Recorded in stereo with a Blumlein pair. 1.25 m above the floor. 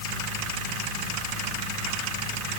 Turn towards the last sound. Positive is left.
No sound to turn to.